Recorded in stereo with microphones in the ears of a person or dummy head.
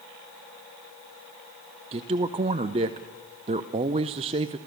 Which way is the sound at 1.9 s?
30° right (ahead or behind).